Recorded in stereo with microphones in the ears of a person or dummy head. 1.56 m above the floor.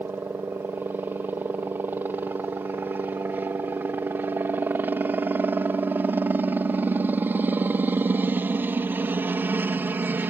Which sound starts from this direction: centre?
A helicopter, at 0.0 s.